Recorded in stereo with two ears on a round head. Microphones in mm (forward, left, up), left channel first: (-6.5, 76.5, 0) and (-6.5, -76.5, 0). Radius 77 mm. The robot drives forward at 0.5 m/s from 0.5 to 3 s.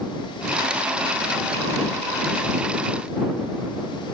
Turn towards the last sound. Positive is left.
No sound to turn to.